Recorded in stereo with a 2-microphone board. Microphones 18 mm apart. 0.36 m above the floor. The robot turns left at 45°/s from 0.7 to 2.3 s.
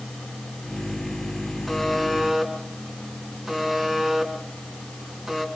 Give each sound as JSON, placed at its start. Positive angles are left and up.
{"t": 1.7, "sound": "a buzzer", "side_deg": 0, "distance_m": 3.5}